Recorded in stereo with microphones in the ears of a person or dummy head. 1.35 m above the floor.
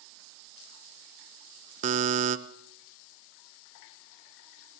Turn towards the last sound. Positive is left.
turn(degrees=-40)  # may be behind; listen again after turning